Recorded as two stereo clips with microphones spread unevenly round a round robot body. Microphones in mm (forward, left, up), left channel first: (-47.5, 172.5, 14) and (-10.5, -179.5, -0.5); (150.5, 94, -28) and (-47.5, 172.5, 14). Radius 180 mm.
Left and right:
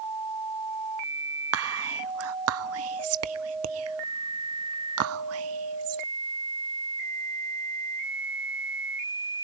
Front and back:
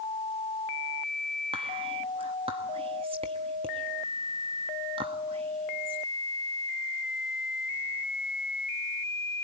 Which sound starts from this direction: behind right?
Whispering, at 1.5 s.